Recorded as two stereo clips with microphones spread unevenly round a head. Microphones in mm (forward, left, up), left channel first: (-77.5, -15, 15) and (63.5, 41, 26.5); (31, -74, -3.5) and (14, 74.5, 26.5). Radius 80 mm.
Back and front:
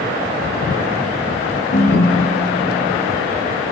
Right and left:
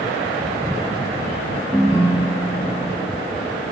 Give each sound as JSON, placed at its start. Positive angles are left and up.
{"t": 1.7, "sound": "a ringtone", "azimuth_deg": 180, "distance_m": 1.1}